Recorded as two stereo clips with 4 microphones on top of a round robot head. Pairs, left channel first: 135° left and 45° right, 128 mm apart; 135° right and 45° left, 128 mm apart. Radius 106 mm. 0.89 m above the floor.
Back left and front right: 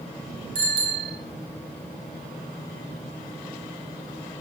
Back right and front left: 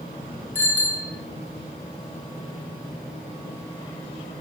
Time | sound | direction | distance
0.6 | a bicycle bell | 60° right | 9 m